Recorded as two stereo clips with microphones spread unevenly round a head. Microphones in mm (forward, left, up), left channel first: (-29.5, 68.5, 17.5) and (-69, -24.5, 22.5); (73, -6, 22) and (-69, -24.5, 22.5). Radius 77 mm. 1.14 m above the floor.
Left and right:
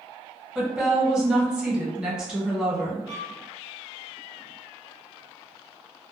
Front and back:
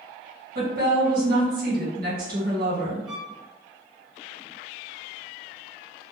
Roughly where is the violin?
Right.